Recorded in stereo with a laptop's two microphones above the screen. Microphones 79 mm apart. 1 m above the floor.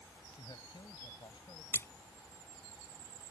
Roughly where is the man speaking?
Left.